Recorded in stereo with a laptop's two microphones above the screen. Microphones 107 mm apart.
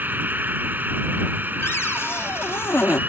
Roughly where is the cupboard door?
Left.